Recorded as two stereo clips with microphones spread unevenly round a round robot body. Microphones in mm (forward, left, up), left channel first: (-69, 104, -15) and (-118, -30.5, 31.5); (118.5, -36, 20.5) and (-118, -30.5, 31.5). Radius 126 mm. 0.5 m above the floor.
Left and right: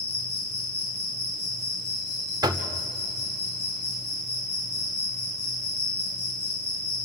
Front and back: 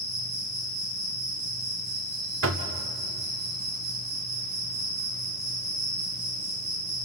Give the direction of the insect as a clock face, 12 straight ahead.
5 o'clock.